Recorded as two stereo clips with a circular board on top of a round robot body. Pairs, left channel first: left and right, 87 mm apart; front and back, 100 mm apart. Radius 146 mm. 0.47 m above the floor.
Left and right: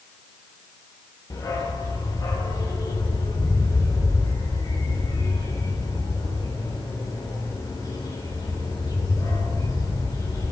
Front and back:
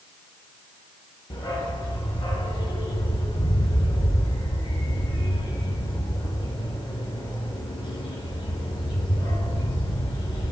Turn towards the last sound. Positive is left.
turn(degrees=45)